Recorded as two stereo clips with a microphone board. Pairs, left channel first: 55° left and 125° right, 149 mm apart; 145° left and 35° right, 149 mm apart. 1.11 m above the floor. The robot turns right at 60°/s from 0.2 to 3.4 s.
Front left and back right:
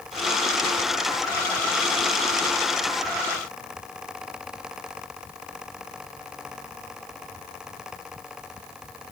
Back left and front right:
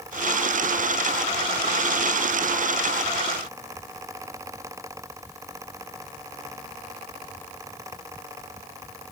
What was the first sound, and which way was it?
Only background noise.